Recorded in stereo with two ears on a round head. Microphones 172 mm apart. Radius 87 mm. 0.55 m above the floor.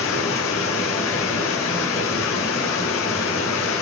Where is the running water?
80° left, 4.5 m.